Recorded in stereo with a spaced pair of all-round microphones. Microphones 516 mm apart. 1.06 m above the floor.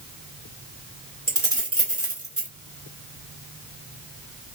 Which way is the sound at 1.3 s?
30° right (ahead or behind).